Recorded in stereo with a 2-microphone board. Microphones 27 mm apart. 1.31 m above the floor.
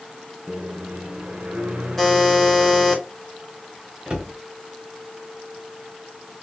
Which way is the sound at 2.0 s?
10° left (ahead or behind).